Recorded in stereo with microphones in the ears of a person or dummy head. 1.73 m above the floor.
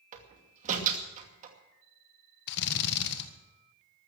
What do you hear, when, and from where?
0.1 s a door slam: 40° right (ahead or behind), 2.5 m
2.5 s a drill: 60° left (ahead or behind), 1.6 m